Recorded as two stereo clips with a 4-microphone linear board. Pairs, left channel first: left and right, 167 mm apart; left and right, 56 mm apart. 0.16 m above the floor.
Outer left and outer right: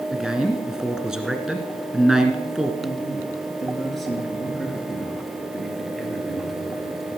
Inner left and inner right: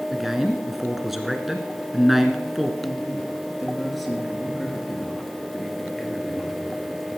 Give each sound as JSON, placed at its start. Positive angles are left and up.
{"t": 0.1, "sound": "a man speaking", "side_deg": -5, "distance_m": 1.7}
{"t": 2.8, "sound": "a man speaking", "side_deg": 0, "distance_m": 3.0}